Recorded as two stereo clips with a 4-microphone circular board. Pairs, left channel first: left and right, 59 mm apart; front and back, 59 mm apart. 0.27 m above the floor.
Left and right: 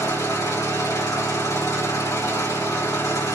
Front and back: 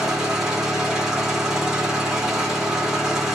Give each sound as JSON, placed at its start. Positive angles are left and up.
{"t": 0.0, "sound": "an engine running", "azimuth_deg": 95, "distance_m": 3.0}